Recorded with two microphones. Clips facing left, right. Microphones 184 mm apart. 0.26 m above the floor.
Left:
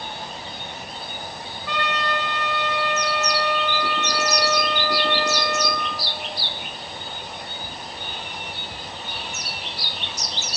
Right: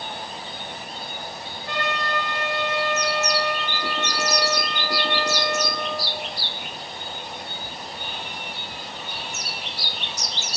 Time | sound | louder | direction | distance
1.7 | a trumpet | left 1 dB | 45° right (ahead or behind) | 0.9 m